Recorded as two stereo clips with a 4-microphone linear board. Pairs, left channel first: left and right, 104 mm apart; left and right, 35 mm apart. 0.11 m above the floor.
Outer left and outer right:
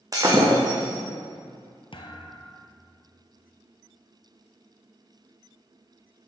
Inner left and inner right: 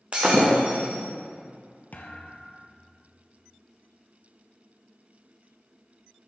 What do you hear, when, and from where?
0.1 s breaking glass: 35° right (ahead or behind), 2 m
1.9 s a thud: 55° left (ahead or behind), 1.0 m